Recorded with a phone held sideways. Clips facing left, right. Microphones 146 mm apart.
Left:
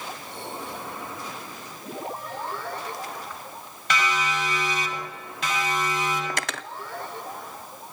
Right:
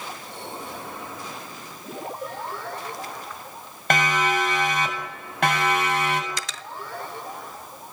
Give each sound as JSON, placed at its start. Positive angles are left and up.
{"t": 2.2, "sound": "a cowbell", "side_deg": -60, "distance_m": 8.0}
{"t": 3.9, "sound": "a siren", "side_deg": -55, "distance_m": 6.5}
{"t": 6.3, "sound": "cutlery clinking", "side_deg": 60, "distance_m": 0.9}